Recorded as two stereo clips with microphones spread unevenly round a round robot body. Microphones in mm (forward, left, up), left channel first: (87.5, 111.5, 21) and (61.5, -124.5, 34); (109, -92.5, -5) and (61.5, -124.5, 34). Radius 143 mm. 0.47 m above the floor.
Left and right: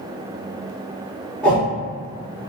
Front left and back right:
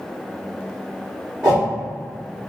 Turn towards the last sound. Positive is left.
turn(degrees=160)